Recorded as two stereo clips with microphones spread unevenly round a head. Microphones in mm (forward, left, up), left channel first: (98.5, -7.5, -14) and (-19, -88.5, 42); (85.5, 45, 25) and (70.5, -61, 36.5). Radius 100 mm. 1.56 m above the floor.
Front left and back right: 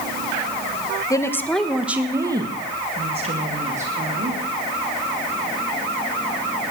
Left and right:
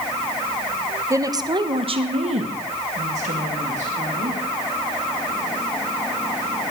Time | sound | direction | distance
1.1 | a woman speaking | 40° right | 1.4 m